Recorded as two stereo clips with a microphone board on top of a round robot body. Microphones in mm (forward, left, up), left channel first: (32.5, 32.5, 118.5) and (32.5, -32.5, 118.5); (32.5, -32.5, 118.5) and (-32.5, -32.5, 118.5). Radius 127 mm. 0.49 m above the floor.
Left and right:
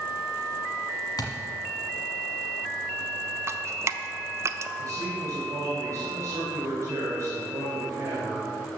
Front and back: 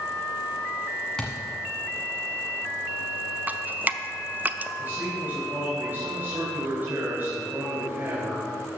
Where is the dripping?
120° right, 0.7 m.